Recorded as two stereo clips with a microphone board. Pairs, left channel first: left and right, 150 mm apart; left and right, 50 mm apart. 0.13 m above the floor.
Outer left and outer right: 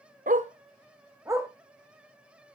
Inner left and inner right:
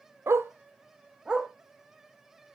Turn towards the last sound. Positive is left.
turn(degrees=-15)  # may be behind; listen again after turning